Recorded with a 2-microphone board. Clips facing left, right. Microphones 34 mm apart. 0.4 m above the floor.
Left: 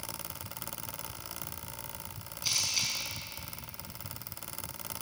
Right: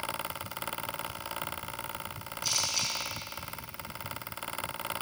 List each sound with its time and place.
2.4 s a camera shutter: 20° left (ahead or behind), 4.5 m